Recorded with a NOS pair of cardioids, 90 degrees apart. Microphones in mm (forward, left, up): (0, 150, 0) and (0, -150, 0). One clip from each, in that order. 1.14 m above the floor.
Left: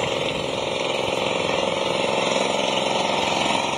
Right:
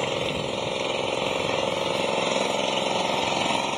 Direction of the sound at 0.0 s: 20° left.